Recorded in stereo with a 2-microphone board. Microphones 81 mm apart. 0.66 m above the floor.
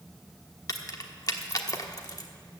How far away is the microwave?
No microwave in this recording.